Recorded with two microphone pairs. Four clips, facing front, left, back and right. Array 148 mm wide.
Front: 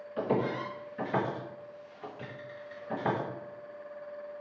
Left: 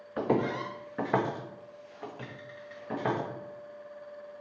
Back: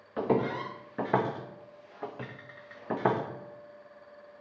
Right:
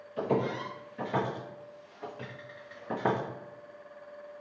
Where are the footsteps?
125° left, 1.4 m; by 3.2 s 155° right, 1.1 m.